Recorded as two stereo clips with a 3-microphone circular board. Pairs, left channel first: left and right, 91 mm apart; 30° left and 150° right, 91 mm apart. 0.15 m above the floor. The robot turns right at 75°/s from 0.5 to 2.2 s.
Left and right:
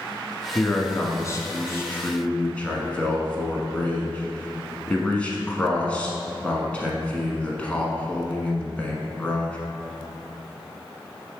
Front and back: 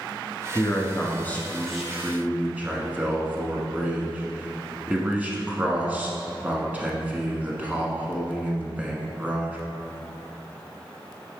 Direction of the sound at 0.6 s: 30° left.